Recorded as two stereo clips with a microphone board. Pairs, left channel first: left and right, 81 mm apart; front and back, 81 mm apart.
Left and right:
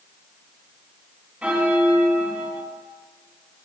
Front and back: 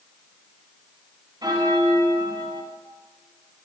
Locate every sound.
1.4 s a bell: 165° right, 1.3 m